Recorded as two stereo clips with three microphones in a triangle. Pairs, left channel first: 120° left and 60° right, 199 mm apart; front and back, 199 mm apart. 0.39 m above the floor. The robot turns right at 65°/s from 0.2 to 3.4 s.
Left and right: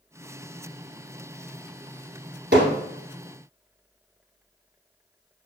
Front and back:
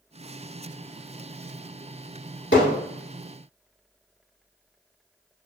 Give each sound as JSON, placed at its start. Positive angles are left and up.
{"t": 2.5, "sound": "hammering", "azimuth_deg": -25, "distance_m": 1.4}